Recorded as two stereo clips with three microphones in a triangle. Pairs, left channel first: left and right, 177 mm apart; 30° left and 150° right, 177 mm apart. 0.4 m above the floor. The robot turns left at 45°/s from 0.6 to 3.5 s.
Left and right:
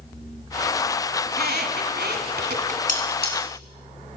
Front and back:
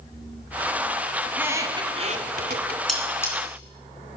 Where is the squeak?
65° right, 1.2 m; by 2.8 s 135° right, 1.2 m.